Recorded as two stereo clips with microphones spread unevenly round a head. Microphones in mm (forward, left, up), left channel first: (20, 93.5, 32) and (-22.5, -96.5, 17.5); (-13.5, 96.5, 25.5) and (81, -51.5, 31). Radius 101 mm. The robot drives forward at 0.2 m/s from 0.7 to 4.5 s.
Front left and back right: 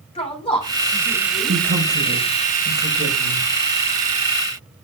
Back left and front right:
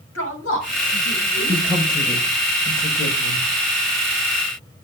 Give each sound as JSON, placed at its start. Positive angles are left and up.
{"t": 0.1, "sound": "a woman speaking", "azimuth_deg": 140, "distance_m": 7.0}
{"t": 1.5, "sound": "a woman speaking", "azimuth_deg": -145, "distance_m": 4.5}